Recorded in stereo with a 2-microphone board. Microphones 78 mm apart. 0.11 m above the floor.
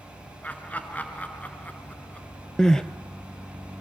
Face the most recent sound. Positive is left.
turn(degrees=10)  # may be behind; listen again after turning